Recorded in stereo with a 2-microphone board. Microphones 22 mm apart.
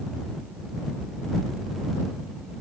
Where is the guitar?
No guitar in this recording.